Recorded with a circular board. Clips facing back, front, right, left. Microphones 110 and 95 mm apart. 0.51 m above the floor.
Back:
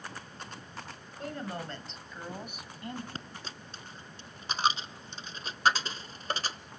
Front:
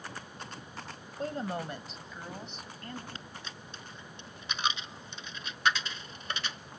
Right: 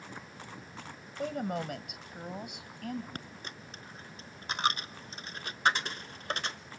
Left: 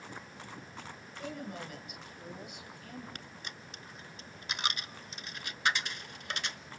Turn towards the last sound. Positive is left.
turn(degrees=-135)